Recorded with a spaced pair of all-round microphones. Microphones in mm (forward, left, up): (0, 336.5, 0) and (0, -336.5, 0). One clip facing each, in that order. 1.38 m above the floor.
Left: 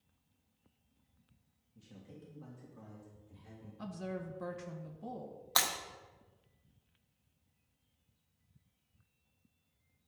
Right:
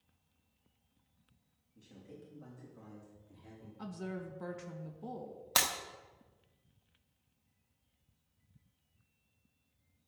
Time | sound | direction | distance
1.8 | a man speaking | 30° left (ahead or behind) | 3 m
3.8 | a woman speaking | 10° left (ahead or behind) | 1.6 m
5.6 | breaking glass | 55° right (ahead or behind) | 1.3 m